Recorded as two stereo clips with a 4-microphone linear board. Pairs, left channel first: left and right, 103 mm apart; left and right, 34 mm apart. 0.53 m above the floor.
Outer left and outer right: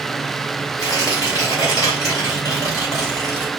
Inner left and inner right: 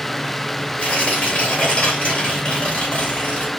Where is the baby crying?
No baby crying in this recording.